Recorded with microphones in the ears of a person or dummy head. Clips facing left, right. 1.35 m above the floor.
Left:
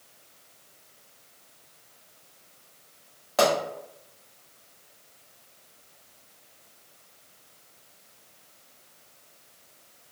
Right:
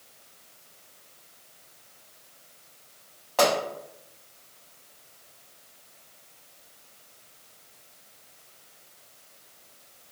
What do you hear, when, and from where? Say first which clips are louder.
3.4 s a pop: even; 15° left (ahead or behind), 1.2 m